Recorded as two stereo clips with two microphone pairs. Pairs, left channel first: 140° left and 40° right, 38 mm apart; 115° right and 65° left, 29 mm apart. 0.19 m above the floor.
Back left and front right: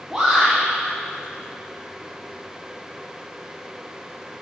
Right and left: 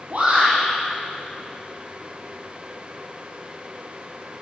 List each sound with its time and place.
0.1 s a shout: 40° left, 4 m